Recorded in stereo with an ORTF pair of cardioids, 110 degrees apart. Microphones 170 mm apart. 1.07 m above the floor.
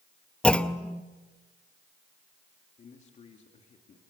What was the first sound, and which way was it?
A clunk, 5° left.